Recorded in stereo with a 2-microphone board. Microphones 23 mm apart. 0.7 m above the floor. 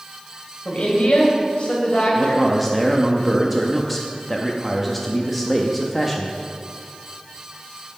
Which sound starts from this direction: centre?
A man speaking, at 2.1 s.